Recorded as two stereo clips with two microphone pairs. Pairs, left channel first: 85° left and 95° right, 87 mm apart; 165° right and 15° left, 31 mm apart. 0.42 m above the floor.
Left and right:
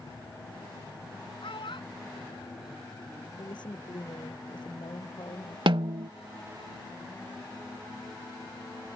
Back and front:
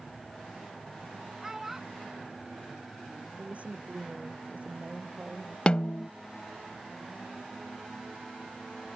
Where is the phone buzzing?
I don't hear a phone buzzing.